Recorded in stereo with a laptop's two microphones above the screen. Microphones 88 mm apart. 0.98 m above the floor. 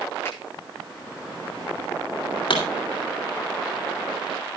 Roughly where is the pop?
Left.